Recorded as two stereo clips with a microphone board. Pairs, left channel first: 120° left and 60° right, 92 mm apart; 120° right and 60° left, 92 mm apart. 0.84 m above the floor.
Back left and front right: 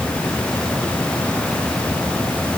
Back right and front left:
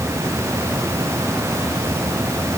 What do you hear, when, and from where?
Only background noise.